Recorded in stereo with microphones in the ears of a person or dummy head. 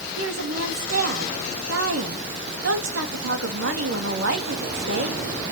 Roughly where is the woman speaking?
Right.